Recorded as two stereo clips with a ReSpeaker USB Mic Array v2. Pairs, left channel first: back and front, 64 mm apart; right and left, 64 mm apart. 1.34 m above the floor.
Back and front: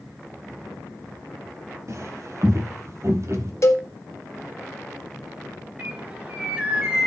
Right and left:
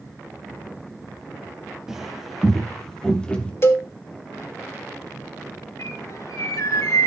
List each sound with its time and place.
1.9 s footsteps: 10° left, 2.0 m; by 3.5 s 25° right, 2 m
3.6 s a cowbell: 135° right, 1.6 m
5.8 s a bird: 70° right, 3 m